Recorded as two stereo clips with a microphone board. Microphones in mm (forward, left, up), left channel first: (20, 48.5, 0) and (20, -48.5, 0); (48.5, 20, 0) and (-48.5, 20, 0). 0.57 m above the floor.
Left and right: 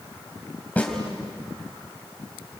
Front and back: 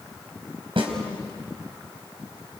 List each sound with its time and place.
0.8 s a snare drum: 165° left, 3 m